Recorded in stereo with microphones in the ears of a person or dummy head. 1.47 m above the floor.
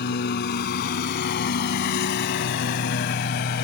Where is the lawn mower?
60° left (ahead or behind); by 3.7 s 50° left (ahead or behind).